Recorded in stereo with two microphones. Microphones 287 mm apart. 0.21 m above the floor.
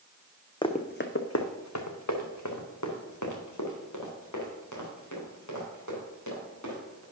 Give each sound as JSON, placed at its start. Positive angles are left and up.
{"t": 0.6, "sound": "running footsteps", "side_deg": 15, "distance_m": 0.8}